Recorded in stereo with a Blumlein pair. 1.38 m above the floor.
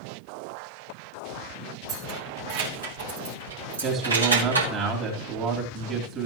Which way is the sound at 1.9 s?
45° right.